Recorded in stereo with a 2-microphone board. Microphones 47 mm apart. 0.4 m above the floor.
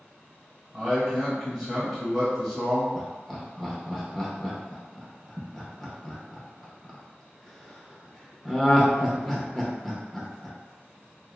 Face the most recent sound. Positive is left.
turn(degrees=5)  # may be behind; listen again after turning